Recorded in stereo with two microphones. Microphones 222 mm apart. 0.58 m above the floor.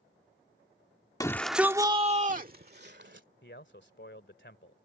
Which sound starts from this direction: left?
A man speaking, at 3.4 s.